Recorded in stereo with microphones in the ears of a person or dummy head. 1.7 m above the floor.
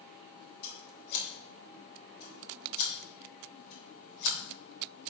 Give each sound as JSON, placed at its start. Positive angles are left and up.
{"t": 0.6, "sound": "scissors", "side_deg": 55, "distance_m": 3.5}